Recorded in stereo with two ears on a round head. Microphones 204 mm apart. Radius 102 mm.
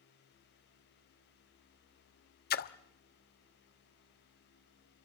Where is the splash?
45° left (ahead or behind), 1.1 m.